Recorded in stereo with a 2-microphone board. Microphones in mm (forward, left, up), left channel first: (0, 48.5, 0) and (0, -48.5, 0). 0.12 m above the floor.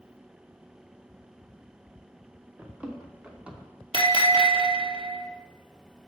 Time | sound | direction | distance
2.6 | running footsteps | 15° right (ahead or behind) | 3 m
3.9 | a bell | 60° right (ahead or behind) | 2.5 m